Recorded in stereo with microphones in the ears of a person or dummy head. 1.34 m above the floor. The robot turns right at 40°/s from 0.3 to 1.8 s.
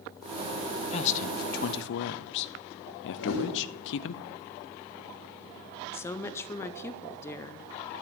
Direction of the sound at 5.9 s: 15° left (ahead or behind).